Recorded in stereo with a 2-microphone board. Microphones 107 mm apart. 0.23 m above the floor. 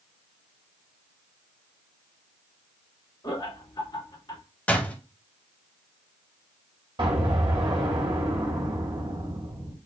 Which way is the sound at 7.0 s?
50° right (ahead or behind).